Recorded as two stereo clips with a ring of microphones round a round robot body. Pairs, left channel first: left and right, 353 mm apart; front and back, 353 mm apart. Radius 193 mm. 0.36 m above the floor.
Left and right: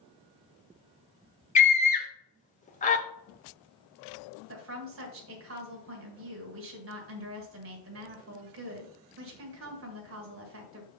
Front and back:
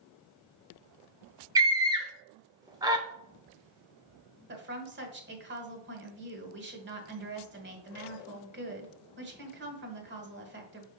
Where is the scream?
120° left, 0.8 m.